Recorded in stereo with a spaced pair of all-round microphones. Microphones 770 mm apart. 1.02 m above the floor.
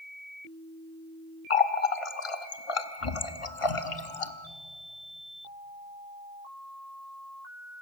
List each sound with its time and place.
1.5 s a running tap: 45° left (ahead or behind), 0.9 m